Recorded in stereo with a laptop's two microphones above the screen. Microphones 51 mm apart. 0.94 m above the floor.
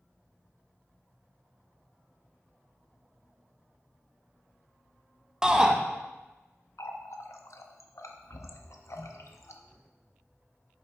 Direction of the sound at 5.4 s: 15° right (ahead or behind).